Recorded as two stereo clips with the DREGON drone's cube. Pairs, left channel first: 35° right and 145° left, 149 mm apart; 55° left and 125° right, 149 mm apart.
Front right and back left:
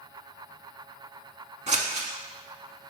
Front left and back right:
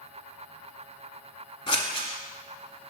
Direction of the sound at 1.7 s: 110° left.